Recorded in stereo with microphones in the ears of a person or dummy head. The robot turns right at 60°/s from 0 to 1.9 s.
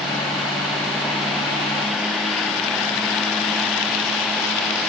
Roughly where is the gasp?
No gasp in this recording.